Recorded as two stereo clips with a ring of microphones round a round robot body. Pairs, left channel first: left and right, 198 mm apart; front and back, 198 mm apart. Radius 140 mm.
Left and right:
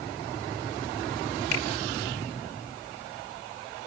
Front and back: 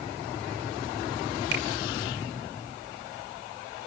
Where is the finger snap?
140° left, 2.5 m.